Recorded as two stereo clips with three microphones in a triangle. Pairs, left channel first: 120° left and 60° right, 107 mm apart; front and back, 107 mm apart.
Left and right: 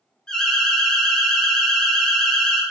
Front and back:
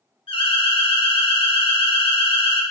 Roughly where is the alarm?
Ahead left.